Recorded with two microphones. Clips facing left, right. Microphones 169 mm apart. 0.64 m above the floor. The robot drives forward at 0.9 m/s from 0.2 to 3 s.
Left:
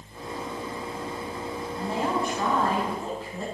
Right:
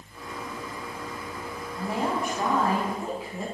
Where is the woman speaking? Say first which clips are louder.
Even; 10° right (ahead or behind), 4 m.